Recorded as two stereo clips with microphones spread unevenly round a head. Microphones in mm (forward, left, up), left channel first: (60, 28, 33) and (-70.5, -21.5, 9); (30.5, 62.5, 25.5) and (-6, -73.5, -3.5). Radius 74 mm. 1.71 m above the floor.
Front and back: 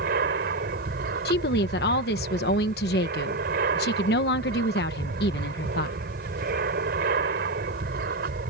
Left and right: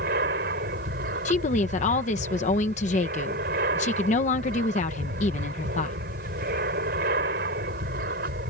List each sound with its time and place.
0.0 s an aircraft: 135° right
1.2 s a woman speaking: 35° left